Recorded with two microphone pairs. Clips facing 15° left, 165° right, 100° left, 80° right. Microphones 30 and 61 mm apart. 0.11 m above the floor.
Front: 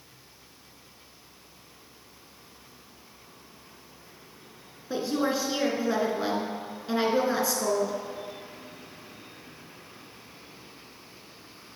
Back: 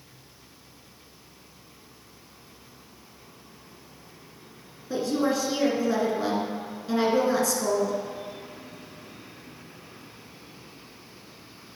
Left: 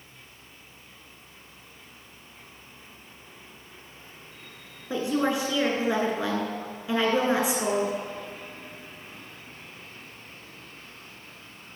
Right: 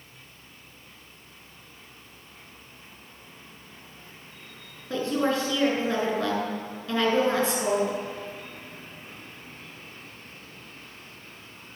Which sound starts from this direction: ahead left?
A woman speaking, at 4.9 s.